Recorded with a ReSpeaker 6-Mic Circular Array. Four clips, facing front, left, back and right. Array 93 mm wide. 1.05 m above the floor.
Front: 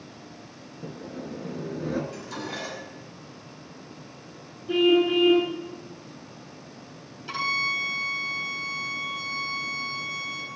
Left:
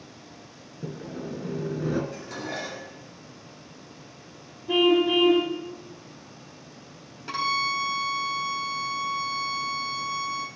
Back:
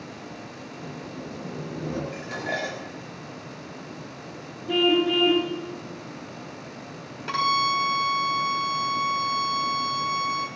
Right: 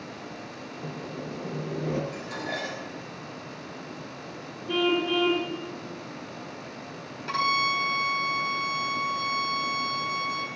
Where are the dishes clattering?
170° left, 4 m.